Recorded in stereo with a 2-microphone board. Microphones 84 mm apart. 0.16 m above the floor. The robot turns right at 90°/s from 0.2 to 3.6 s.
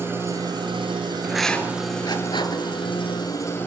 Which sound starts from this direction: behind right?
An engine running, at 0.0 s.